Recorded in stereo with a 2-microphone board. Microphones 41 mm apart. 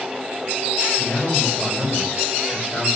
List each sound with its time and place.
1.0 s a man speaking: 15° left (ahead or behind), 8 m